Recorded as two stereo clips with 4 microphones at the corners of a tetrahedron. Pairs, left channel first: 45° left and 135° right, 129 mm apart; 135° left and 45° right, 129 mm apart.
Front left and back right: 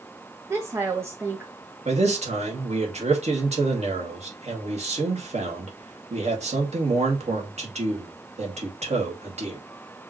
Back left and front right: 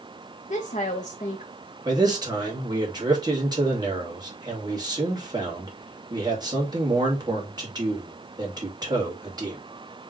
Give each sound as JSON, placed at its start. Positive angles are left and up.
{"t": 0.5, "sound": "a woman speaking", "azimuth_deg": 155, "distance_m": 0.8}
{"t": 1.9, "sound": "a man speaking", "azimuth_deg": -105, "distance_m": 2.0}